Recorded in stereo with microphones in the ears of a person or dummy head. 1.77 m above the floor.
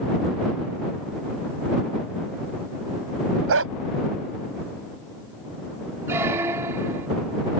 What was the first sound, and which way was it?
A dog barking, 70° right (ahead or behind).